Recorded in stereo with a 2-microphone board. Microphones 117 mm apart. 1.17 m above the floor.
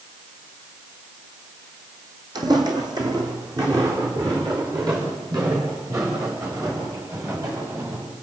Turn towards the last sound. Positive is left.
turn(degrees=-30)  # may be behind; listen again after turning